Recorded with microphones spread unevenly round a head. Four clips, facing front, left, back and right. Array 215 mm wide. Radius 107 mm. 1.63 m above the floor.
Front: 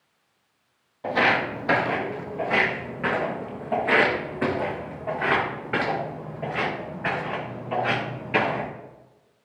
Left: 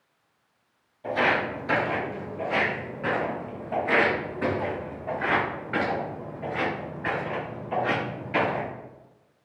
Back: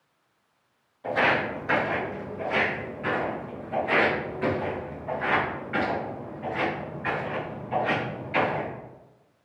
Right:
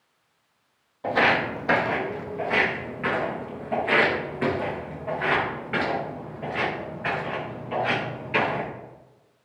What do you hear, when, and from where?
1.0 s footsteps: 50° right, 2.5 m; by 8.7 s straight ahead, 8.5 m